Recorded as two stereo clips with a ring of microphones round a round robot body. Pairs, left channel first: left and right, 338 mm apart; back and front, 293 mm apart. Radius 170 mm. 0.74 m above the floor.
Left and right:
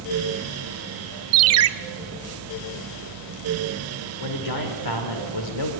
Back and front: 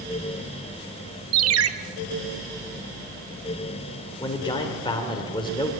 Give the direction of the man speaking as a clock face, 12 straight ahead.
8 o'clock.